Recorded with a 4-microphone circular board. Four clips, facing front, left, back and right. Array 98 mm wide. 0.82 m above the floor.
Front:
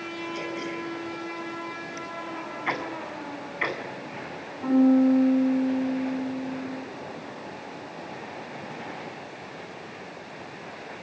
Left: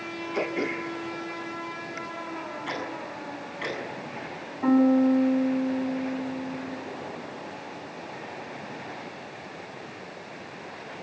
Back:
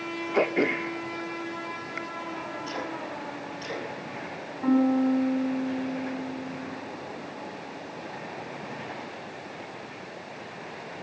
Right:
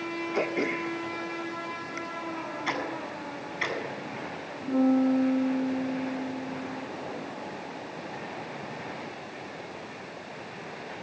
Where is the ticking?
15° right, 7.5 m.